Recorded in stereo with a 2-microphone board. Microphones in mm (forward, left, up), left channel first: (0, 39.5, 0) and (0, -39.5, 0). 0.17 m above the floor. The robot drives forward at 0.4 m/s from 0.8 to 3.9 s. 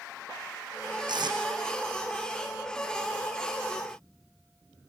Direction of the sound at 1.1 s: 70° right (ahead or behind).